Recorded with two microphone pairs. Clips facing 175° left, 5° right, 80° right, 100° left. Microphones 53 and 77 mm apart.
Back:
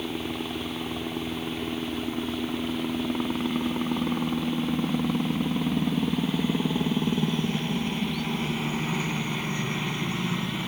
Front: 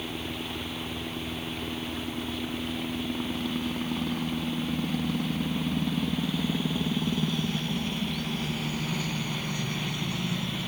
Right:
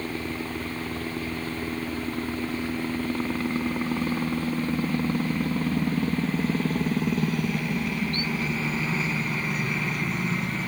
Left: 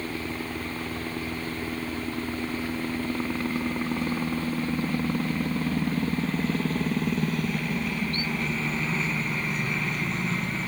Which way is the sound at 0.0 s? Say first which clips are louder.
Back 4 dB, right 1 dB; 160° right.